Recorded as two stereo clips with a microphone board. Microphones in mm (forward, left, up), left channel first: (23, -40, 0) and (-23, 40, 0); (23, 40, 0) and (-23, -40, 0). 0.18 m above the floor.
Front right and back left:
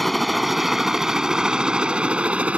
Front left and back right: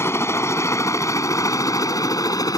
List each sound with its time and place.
0.0 s a helicopter: 30° left; by 2.6 s 50° left